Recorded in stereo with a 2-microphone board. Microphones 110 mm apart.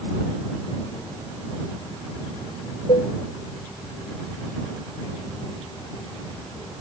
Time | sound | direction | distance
2.9 | dishes clattering | 80° left | ?